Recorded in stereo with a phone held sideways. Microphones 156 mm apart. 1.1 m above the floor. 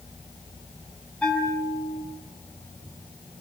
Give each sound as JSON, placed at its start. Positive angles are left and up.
{"t": 1.2, "sound": "a bell", "side_deg": 5, "distance_m": 9.0}